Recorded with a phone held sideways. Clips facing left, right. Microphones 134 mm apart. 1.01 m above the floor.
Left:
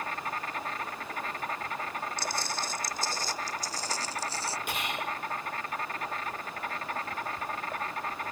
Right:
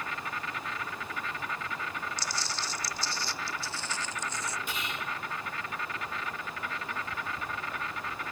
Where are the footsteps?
60° left (ahead or behind); by 4.6 s 35° left (ahead or behind).